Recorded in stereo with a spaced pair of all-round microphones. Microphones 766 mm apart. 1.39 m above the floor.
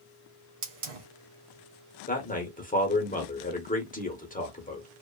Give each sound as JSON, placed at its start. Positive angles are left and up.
{"t": 0.6, "sound": "a hiss", "side_deg": -50, "distance_m": 0.8}
{"t": 2.1, "sound": "a man speaking", "side_deg": 10, "distance_m": 0.7}